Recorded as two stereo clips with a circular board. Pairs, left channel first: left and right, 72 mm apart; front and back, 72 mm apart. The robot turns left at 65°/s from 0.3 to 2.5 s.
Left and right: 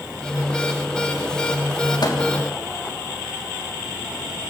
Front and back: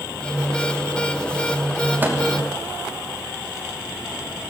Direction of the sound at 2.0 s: 115° left.